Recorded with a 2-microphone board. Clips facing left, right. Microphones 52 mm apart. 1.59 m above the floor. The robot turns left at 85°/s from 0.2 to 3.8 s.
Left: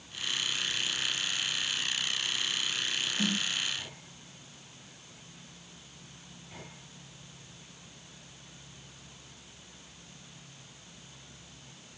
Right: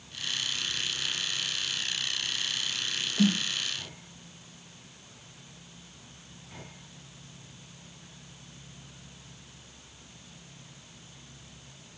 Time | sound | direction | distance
3.2 | a snare drum | 70° right (ahead or behind) | 1.7 m